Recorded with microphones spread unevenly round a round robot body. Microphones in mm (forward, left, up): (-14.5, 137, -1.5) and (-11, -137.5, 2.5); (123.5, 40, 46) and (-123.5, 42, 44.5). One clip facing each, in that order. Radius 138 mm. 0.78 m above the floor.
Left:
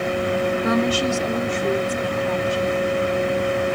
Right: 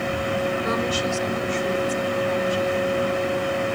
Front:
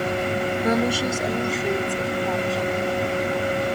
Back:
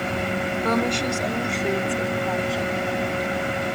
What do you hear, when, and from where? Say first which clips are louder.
0.6 s a woman speaking: left 5 dB, front 1 dB; 80° left; by 2.7 s 90° left